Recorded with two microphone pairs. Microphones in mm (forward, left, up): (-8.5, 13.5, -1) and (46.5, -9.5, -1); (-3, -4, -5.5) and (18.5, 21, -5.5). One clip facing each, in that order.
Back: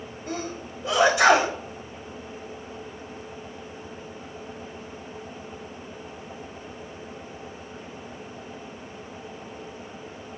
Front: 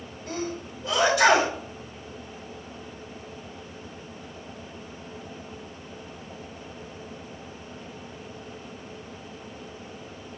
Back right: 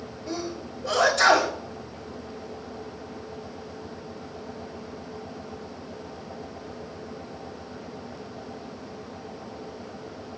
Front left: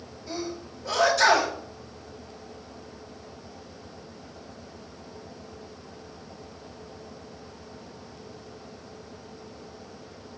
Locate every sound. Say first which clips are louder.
0.3 s a sneeze: front 1 dB, back right 1 dB; 135° right, 4.5 m